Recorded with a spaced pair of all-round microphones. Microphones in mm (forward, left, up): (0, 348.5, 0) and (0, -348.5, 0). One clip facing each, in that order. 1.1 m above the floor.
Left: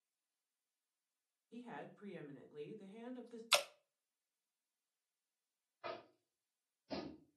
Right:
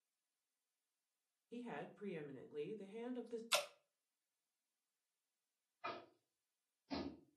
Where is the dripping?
80° left, 0.5 m.